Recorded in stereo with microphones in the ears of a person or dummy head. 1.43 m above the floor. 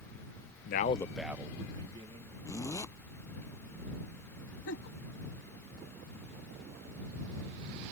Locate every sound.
0.7 s a man speaking: 65° left (ahead or behind); by 2.4 s 30° right (ahead or behind)
2.5 s a zipper: 15° left (ahead or behind)
4.7 s a giggle: 75° left (ahead or behind)